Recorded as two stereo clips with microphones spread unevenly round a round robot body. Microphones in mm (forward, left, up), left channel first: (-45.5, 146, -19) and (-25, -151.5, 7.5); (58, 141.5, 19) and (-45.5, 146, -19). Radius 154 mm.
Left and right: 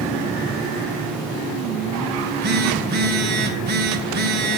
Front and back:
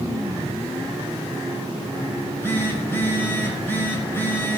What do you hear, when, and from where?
2.2 s a phone buzzing: 95° right, 1.5 m